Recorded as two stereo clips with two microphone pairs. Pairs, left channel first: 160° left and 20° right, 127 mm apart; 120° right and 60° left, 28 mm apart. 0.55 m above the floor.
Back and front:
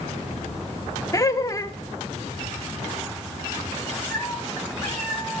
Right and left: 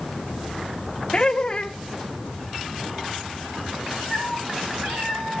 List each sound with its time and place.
1.1 s laughter: 155° right, 1.1 m
4.1 s a cat meowing: 85° left, 3.5 m